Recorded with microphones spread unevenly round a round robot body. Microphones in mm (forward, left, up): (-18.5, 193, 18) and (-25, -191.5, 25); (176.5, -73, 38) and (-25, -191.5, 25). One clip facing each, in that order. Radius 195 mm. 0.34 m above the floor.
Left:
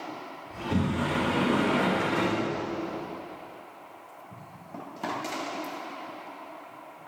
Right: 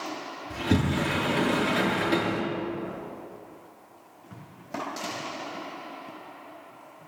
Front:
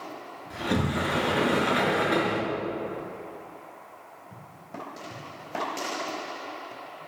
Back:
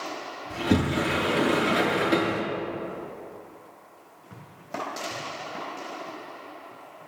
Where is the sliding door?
95° right, 4.5 m.